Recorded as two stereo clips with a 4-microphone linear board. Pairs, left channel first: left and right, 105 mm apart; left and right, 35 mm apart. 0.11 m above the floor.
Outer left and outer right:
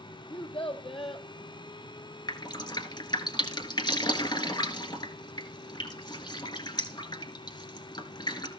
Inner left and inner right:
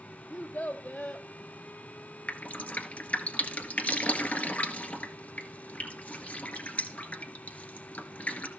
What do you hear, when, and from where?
0.3 s a child speaking: 60° left (ahead or behind), 2 m
2.3 s dripping: 45° left (ahead or behind), 1.6 m